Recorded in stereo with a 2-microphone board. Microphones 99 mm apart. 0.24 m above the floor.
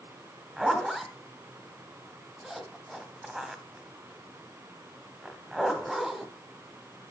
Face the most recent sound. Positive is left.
turn(degrees=0)  # may be behind; listen again after turning